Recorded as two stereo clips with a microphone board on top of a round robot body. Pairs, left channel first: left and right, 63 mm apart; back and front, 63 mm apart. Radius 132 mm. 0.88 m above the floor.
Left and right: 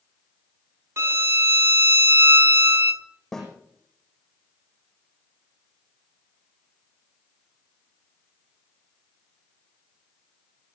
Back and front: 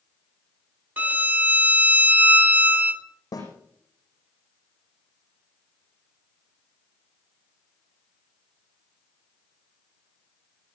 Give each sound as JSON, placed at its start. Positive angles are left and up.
{"t": 1.0, "sound": "a violin", "azimuth_deg": -55, "distance_m": 0.9}
{"t": 3.3, "sound": "a snare drum", "azimuth_deg": 170, "distance_m": 9.0}